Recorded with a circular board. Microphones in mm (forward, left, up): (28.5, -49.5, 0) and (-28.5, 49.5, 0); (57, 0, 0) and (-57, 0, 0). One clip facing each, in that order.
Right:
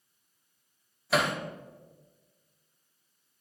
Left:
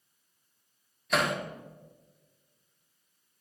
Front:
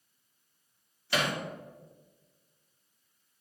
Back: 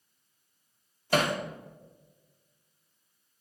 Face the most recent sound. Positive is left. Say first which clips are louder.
# right 1 dB, back 5 dB
turn(degrees=-145)